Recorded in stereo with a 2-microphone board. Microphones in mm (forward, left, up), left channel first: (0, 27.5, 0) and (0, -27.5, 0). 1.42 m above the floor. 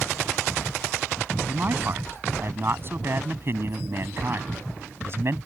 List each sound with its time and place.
1.5 s a man speaking: 40° right (ahead or behind); by 5.4 s 50° right (ahead or behind)